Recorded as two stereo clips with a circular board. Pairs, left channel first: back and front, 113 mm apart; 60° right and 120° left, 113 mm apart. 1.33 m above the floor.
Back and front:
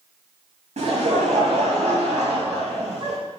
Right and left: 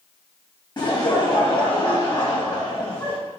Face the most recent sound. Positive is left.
turn(degrees=-10)